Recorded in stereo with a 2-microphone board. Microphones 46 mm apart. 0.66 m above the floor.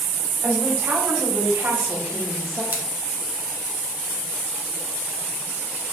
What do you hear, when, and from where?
0.4 s a woman speaking: 40° right (ahead or behind), 4 m; by 2.6 s 55° right (ahead or behind), 3.5 m
2.7 s scissors: 40° right (ahead or behind), 3 m